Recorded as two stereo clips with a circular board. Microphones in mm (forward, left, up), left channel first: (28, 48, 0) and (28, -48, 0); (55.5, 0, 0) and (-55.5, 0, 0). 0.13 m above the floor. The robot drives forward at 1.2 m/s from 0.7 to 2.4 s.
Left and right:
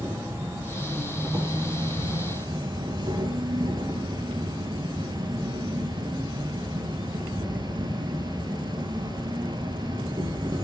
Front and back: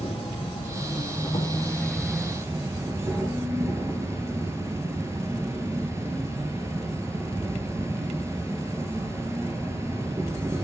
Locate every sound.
0.0 s an insect: 25° right, 1.8 m; by 10.6 s 120° right, 1.0 m